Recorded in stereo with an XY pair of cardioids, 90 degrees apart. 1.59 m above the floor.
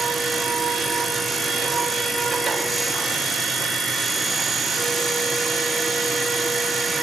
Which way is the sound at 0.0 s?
60° right.